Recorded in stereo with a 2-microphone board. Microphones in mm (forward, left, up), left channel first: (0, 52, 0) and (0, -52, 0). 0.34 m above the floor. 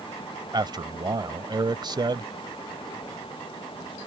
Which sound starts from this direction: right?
A man speaking, at 0.5 s.